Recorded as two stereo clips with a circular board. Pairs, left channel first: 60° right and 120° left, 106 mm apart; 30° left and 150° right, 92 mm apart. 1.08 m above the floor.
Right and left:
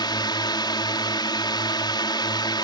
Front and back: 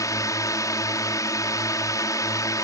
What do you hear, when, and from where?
0.0 s a drone: 20° right